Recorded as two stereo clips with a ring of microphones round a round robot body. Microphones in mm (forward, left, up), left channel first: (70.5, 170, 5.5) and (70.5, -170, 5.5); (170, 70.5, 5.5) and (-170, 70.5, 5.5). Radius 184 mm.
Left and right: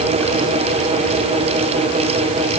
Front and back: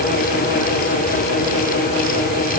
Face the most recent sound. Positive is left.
No sound to turn to.